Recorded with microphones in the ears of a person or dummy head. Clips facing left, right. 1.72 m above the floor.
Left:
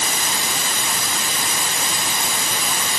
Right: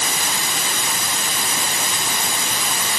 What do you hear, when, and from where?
Only background noise.